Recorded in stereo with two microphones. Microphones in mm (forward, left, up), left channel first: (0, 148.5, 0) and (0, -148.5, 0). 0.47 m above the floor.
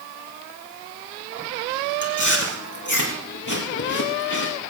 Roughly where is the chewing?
Left.